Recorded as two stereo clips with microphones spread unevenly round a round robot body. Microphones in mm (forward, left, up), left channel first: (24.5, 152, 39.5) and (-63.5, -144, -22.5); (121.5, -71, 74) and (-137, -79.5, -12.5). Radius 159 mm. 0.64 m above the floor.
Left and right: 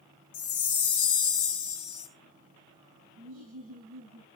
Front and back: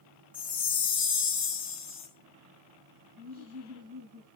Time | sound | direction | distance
0.3 | a chime | 110° left | 2.5 m
3.2 | laughter | 150° right | 9.5 m